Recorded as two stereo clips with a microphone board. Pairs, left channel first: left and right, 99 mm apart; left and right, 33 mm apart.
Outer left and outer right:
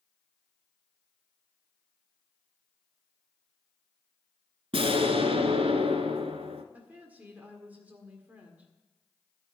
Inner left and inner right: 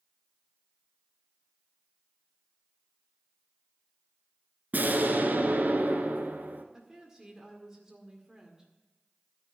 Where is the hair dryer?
No hair dryer in this recording.